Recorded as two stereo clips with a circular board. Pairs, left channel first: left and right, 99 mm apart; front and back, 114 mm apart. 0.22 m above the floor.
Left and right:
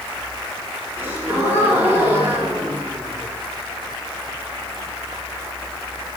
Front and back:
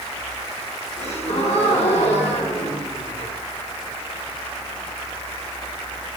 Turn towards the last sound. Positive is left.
turn(degrees=-15)